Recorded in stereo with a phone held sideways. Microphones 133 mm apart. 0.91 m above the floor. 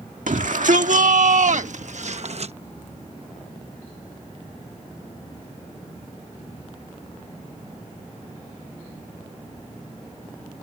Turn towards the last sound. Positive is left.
turn(degrees=-50)  # may be behind; listen again after turning